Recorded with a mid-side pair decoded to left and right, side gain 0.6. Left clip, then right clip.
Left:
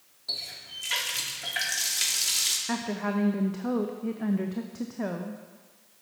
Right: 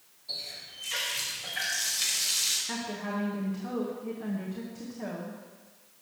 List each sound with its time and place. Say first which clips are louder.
0.3 s a running tap: left 3 dB; 60° left, 2 m
2.7 s a woman speaking: left 4 dB; 40° left, 0.9 m